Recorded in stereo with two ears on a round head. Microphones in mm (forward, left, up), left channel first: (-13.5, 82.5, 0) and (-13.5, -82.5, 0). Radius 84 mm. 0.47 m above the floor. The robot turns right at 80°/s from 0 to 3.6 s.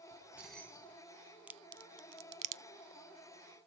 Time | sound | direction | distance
0.1 | keys jangling | 30° right | 1.2 m
1.5 | a crack | 10° right (ahead or behind) | 0.6 m